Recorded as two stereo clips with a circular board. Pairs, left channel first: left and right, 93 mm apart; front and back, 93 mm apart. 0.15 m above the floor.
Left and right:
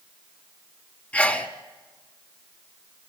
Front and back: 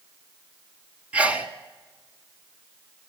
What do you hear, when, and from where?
1.1 s a sneeze: 130° left, 1.1 m